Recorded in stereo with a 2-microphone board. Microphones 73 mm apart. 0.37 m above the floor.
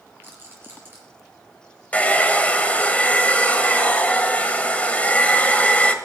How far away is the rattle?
About 5 m.